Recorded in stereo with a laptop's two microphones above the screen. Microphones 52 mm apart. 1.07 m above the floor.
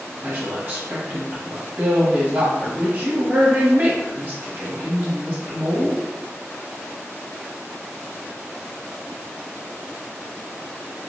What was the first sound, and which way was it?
A woman speaking, 30° right (ahead or behind).